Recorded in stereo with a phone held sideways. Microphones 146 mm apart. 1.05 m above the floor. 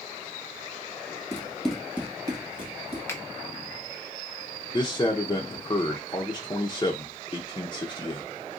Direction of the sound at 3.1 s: 15° left (ahead or behind).